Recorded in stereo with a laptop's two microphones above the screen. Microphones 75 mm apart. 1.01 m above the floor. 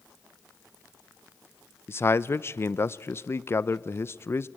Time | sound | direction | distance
1.9 | a man speaking | 35° left (ahead or behind) | 0.5 m